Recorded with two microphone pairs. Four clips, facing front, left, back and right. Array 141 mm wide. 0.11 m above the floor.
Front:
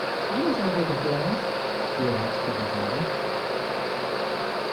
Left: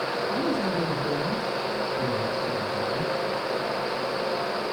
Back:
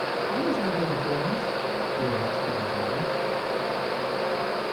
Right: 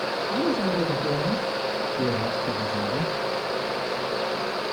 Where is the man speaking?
5° left, 5 m; by 3.1 s 35° right, 3.5 m.